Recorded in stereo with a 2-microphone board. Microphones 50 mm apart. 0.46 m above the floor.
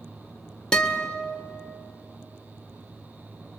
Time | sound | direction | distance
0.7 | a guitar | 15° left (ahead or behind) | 1.5 m